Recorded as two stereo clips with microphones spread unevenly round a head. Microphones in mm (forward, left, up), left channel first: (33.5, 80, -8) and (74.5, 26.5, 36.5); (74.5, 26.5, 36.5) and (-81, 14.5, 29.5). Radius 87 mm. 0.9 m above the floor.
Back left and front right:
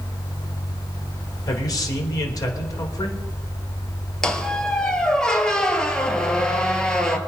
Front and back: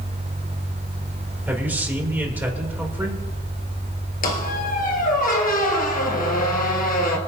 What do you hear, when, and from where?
1.5 s a man speaking: 105° left, 3 m
4.2 s a squeak: 30° left, 1.9 m